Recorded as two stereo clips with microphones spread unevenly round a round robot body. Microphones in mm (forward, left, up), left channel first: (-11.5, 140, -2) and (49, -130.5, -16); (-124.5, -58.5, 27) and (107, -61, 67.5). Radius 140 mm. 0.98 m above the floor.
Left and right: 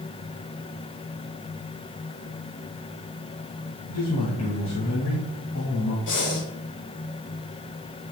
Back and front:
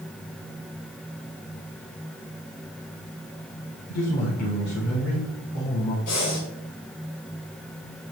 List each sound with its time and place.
3.9 s a man speaking: 145° left, 1.5 m
6.1 s breathing: 150° left, 1.7 m